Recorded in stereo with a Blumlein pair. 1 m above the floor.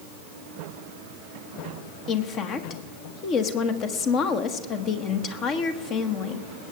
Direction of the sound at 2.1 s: 30° left.